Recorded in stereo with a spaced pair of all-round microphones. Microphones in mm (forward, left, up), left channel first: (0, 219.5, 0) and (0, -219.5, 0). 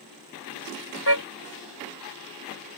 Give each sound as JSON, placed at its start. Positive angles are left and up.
{"t": 1.1, "sound": "a car horn", "side_deg": 65}